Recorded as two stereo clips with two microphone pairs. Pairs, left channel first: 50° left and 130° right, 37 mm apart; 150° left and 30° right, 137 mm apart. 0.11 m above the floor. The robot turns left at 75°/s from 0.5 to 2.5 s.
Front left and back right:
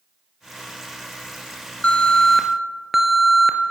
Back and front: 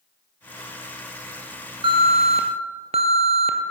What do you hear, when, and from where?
1.8 s an alarm: 5° left, 1.2 m; by 3.6 s 45° right, 1.2 m